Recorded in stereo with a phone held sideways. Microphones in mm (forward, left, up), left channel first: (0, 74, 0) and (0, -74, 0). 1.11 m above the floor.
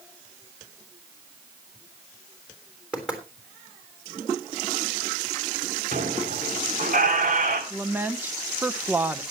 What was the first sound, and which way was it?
Knocking, 5° right (ahead or behind).